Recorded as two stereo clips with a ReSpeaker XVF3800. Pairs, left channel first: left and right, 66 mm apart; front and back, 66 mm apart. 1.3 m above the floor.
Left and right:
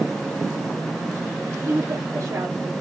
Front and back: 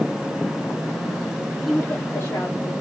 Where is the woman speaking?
95° right, 0.5 m; by 2.7 s 40° right, 1.8 m.